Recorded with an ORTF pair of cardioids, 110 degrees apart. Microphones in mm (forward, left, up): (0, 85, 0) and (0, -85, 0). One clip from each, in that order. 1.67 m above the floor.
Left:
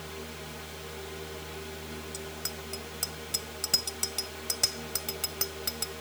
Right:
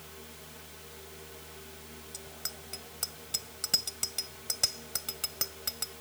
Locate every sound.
0.0 s a fan: 55° left
2.1 s a bicycle bell: 10° left